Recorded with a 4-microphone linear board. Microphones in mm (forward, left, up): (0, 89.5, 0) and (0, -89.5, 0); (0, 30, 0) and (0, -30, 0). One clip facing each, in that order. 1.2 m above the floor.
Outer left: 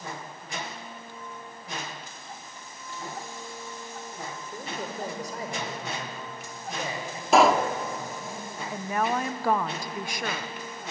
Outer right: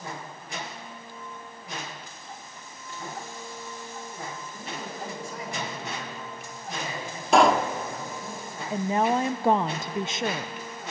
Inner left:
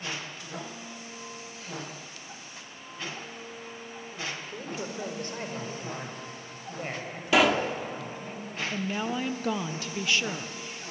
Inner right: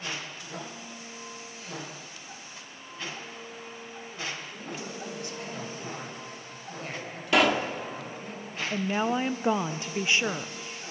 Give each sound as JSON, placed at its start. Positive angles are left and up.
{"t": 4.5, "sound": "a man speaking", "side_deg": 55, "distance_m": 5.0}
{"t": 7.3, "sound": "a pop", "side_deg": 0, "distance_m": 1.2}
{"t": 8.7, "sound": "a woman speaking", "side_deg": -25, "distance_m": 0.6}